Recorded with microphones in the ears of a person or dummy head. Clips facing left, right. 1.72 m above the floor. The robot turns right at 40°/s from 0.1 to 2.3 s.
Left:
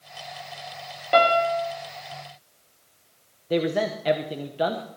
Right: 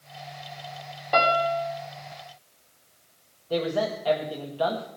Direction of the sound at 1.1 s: 35° left (ahead or behind).